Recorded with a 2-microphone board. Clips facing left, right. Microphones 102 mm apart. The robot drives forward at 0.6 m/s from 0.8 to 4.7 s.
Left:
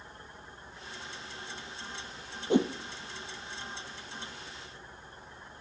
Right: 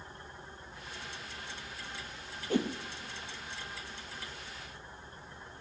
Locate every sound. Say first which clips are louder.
2.5 s a whoosh: left 5 dB; 25° left (ahead or behind), 0.7 m; by 2.7 s 20° left (ahead or behind), 0.8 m